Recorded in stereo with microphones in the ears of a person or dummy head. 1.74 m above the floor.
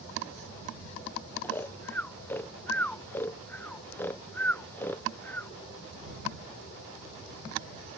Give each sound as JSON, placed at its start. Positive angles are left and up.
{"t": 1.4, "sound": "snoring", "side_deg": 10}